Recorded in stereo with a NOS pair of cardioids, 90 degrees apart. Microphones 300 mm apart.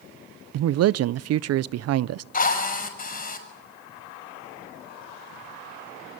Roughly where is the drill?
Ahead left.